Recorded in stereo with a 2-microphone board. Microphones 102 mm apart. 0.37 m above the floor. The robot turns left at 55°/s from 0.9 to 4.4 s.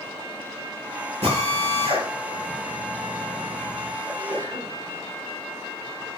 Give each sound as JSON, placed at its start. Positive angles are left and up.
{"t": 1.2, "sound": "a drill", "side_deg": -75, "distance_m": 7.5}
{"t": 4.0, "sound": "a sneeze", "side_deg": 50, "distance_m": 5.5}